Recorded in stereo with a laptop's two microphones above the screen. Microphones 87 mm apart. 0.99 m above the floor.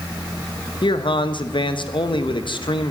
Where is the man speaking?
65° left (ahead or behind), 0.9 m.